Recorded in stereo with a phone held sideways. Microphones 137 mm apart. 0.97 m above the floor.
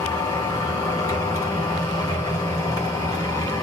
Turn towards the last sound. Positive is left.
turn(degrees=25)  # may be behind; listen again after turning